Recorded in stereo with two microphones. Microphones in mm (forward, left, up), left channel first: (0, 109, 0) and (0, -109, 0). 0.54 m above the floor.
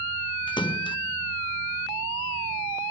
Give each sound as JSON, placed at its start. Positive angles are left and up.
{"t": 0.5, "sound": "a splash", "side_deg": 20, "distance_m": 0.6}